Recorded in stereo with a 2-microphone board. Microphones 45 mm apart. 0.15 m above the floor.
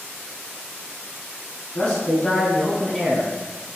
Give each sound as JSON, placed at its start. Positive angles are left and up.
{"t": 1.8, "sound": "a man speaking", "side_deg": 25, "distance_m": 1.1}